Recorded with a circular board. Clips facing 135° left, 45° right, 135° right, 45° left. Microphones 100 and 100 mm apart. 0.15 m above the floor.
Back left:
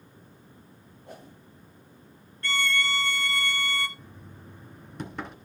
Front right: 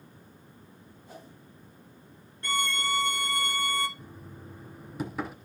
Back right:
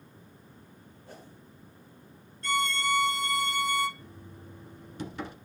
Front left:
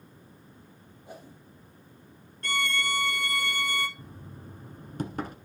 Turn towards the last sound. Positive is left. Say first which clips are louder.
# front right 2 dB, front left 2 dB
turn(degrees=40)